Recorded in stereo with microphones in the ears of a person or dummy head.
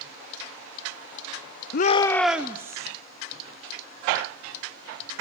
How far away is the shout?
About 0.6 m.